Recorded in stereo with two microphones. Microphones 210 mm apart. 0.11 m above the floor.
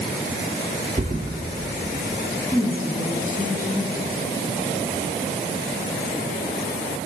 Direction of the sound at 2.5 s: 15° left (ahead or behind).